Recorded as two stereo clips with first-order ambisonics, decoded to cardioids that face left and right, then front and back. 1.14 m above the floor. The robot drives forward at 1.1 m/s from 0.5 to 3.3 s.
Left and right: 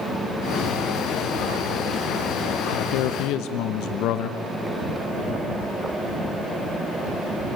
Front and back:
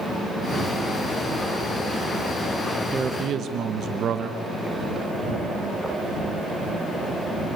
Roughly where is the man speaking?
Left.